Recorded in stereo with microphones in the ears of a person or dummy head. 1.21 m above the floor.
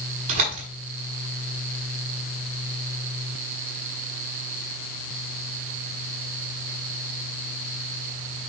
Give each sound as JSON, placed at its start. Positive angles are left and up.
{"t": 0.3, "sound": "a door slam", "side_deg": -40, "distance_m": 7.0}